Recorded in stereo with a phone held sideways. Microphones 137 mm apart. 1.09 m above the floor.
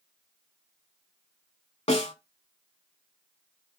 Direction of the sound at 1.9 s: 50° left (ahead or behind).